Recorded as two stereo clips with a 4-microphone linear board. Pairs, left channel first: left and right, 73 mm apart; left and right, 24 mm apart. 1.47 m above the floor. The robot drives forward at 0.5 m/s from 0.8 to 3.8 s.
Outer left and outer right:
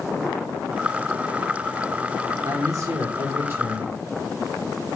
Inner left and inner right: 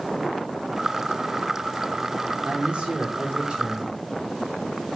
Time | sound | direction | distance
2.4 | a man speaking | 50° right (ahead or behind) | 1.0 m